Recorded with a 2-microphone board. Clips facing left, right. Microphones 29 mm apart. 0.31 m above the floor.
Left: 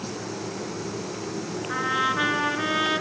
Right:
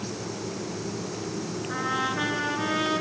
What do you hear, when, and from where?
1.7 s a trumpet: 20° left (ahead or behind), 2.5 m